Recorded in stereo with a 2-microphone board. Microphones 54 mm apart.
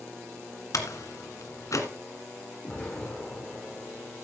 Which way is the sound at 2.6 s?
20° left (ahead or behind).